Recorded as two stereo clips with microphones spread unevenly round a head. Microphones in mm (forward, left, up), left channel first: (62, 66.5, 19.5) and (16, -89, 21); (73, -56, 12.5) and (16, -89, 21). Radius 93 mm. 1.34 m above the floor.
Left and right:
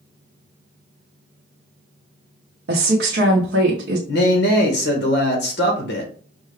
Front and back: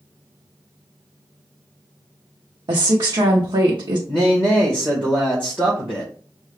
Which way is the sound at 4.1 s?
110° left.